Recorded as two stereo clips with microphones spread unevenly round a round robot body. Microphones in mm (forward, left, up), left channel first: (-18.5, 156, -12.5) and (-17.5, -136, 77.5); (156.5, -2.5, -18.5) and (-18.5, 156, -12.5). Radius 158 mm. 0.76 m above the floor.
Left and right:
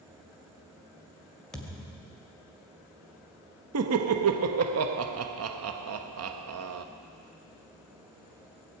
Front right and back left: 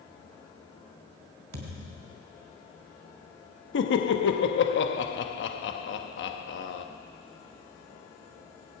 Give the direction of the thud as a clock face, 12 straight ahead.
6 o'clock.